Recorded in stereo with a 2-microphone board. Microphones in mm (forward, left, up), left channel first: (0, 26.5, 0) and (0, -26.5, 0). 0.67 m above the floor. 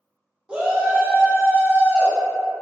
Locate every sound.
0.5 s a shout: 20° right (ahead or behind), 0.9 m; by 2.2 s 25° right (ahead or behind), 2 m